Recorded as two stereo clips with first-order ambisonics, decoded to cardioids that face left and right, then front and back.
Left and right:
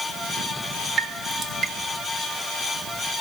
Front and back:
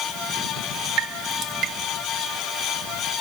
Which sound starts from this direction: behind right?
Dripping, at 1.0 s.